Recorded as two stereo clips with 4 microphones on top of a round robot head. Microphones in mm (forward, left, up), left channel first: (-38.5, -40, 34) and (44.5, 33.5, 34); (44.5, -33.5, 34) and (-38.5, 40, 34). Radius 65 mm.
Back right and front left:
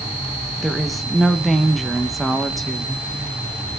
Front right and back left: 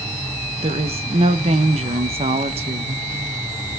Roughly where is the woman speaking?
Behind left.